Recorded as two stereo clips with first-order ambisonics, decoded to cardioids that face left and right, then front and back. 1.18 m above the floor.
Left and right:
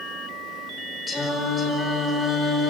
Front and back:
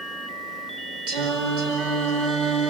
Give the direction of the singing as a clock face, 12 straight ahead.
6 o'clock.